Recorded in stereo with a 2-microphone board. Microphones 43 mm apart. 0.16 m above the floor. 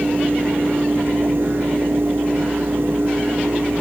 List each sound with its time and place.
Only background noise.